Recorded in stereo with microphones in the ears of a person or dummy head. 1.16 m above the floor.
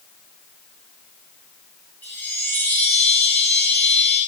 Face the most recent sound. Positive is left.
turn(degrees=10)  # may be behind; listen again after turning